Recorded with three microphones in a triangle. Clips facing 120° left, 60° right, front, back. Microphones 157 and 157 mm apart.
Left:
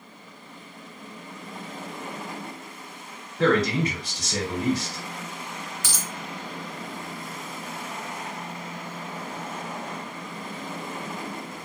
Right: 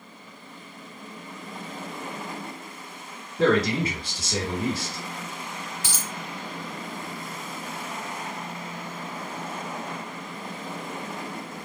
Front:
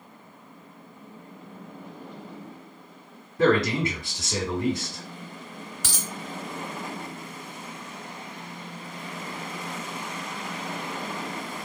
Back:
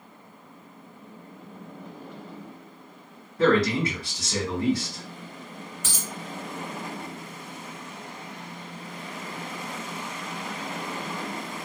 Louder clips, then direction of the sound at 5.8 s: Even, front 1 dB; 5° left.